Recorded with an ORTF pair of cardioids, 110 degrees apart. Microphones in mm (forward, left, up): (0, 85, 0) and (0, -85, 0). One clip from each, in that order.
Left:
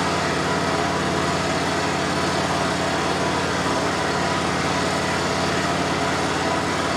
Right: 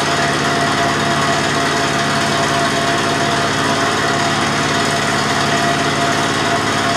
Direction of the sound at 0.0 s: 70° right.